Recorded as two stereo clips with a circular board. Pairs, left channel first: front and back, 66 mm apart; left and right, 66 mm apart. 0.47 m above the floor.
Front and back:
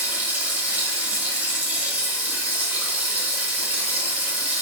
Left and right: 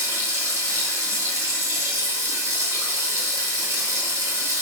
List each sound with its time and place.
0.0 s running water: 120° right, 1.2 m